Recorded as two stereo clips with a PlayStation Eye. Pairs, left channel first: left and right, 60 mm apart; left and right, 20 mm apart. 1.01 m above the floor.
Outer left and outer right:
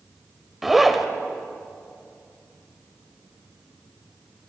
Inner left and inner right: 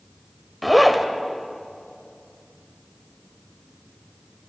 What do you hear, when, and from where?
0.6 s a zipper: 5° right (ahead or behind), 1.8 m